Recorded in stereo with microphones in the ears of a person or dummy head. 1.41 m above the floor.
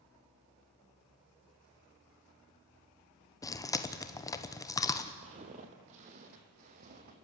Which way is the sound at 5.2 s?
35° right (ahead or behind).